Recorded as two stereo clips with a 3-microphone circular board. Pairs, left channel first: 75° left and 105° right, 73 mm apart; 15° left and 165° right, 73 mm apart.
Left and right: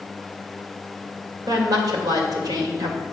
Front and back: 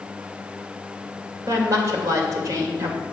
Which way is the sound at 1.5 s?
125° right.